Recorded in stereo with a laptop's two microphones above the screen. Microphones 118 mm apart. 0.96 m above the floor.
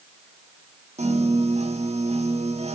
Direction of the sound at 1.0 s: 65° right (ahead or behind).